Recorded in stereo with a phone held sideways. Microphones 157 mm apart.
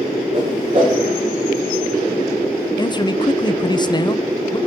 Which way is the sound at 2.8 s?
30° left (ahead or behind).